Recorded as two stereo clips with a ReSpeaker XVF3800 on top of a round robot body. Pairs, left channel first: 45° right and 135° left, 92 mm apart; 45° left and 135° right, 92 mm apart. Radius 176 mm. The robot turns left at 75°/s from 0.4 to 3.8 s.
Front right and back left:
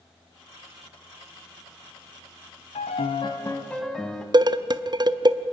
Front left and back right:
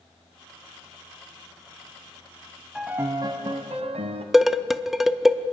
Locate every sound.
2.8 s a piano: 50° right, 0.9 m; by 4.2 s 130° right, 0.9 m
4.3 s dishes clattering: 140° left, 0.8 m